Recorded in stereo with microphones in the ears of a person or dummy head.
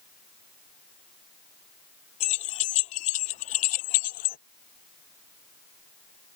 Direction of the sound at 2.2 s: 35° left (ahead or behind).